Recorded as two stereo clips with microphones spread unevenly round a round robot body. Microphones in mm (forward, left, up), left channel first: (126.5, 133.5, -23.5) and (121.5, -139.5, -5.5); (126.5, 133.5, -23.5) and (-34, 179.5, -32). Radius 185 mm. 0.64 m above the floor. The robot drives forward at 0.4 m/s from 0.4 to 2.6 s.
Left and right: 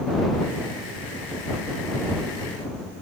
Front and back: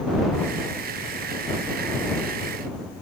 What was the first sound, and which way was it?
Only background noise.